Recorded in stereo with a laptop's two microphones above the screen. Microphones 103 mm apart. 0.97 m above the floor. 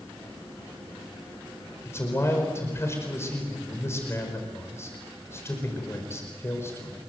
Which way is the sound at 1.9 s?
25° left (ahead or behind).